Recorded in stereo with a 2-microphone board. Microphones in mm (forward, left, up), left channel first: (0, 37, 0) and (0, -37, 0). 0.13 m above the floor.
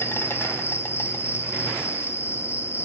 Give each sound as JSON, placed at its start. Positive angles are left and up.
{"t": 0.0, "sound": "an insect", "side_deg": 35, "distance_m": 1.2}